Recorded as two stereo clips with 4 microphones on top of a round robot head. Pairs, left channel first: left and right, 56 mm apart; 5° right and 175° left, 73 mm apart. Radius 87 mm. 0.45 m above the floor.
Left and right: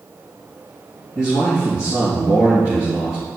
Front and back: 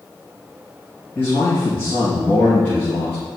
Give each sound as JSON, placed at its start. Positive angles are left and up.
{"t": 1.1, "sound": "a man speaking", "azimuth_deg": 55, "distance_m": 3.5}